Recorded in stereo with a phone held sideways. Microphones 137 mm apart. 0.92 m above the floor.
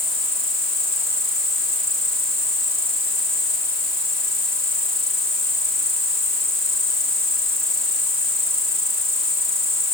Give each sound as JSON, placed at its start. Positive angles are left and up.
{"t": 0.0, "sound": "an insect", "side_deg": -20}